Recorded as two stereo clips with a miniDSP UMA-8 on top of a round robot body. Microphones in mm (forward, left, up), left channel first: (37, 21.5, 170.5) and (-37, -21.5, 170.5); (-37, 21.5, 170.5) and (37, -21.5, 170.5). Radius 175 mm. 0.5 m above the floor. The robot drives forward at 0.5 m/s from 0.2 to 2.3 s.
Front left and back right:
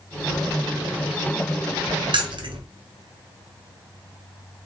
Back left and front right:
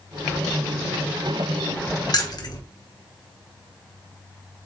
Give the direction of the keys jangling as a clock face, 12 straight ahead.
6 o'clock.